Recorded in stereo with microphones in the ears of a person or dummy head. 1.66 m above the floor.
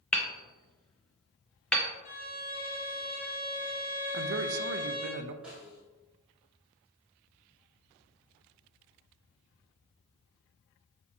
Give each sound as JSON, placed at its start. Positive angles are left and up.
{"t": 0.1, "sound": "hammering", "side_deg": 5, "distance_m": 0.9}
{"t": 2.0, "sound": "a violin", "side_deg": 30, "distance_m": 1.1}
{"t": 4.1, "sound": "a man speaking", "side_deg": -60, "distance_m": 0.6}
{"t": 5.4, "sound": "a snare drum", "side_deg": -5, "distance_m": 3.0}